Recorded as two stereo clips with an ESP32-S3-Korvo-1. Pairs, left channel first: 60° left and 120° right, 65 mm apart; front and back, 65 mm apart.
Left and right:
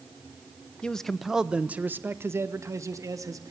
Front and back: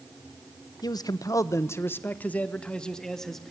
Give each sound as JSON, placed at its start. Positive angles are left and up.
{"t": 0.8, "sound": "a man speaking", "azimuth_deg": -15, "distance_m": 1.5}